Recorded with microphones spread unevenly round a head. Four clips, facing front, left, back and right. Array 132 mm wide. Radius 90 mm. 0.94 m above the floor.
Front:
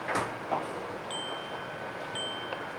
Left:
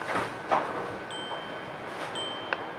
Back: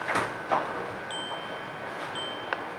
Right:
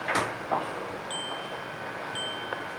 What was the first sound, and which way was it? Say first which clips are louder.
A bicycle bell: right 1 dB, back 2 dB; 30° left.